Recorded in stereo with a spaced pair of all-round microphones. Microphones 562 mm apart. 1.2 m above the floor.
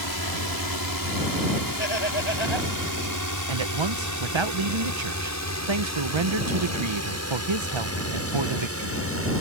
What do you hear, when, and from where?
0.0 s a drone: 40° right (ahead or behind); by 9.4 s 25° right (ahead or behind)
1.8 s laughter: 50° left (ahead or behind)
3.5 s a man speaking: 55° right (ahead or behind)